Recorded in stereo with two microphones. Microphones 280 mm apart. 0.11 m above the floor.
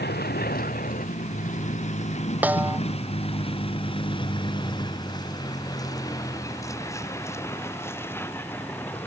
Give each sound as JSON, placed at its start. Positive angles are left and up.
{"t": 0.0, "sound": "a vehicle", "side_deg": 35}
{"t": 2.4, "sound": "a snare drum", "side_deg": -5}